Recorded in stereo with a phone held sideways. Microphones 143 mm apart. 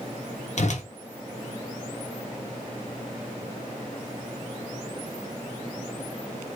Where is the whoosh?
55° left (ahead or behind), 0.8 m.